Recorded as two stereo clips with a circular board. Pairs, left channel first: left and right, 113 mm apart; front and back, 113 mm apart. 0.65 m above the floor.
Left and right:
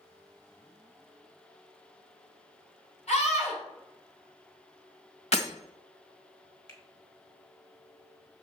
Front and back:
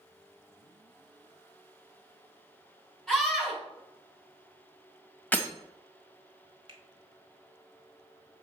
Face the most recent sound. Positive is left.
turn(degrees=140)